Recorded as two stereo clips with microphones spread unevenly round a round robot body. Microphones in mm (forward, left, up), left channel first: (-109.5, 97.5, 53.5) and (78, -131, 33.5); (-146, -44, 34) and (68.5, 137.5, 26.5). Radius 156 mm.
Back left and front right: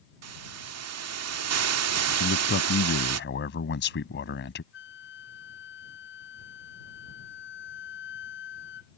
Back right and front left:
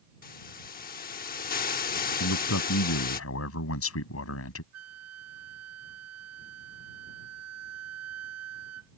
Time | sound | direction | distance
0.2 | a hiss | 80° right | ?
2.2 | a man speaking | 175° right | ?
4.7 | a flute | 75° left | ?